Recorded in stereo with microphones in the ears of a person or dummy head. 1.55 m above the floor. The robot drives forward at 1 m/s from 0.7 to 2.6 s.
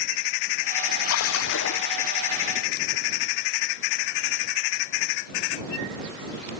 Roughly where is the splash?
Left.